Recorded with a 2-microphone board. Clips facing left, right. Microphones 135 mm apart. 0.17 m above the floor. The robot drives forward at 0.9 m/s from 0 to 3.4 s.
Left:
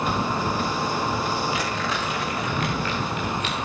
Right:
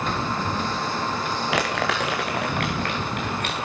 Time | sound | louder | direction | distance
1.5 | crumpling | right 3 dB | 80° right | 3 m